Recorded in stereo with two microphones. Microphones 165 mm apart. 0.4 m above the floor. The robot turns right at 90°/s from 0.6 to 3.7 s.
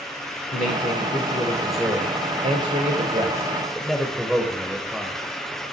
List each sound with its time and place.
0.5 s a man speaking: 80° left, 1.2 m; by 5.2 s 5° right, 1.2 m